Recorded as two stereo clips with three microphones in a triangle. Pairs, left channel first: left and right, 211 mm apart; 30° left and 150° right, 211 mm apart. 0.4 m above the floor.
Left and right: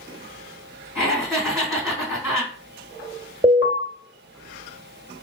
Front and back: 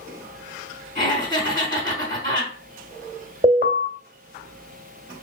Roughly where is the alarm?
Behind right.